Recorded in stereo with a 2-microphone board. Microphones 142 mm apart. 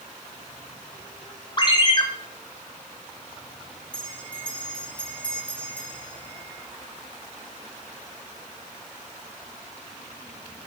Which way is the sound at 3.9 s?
10° left (ahead or behind).